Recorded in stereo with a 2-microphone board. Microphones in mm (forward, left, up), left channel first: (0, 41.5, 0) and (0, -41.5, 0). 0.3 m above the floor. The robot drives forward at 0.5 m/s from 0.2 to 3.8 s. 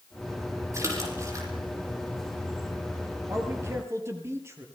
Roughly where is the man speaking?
Right.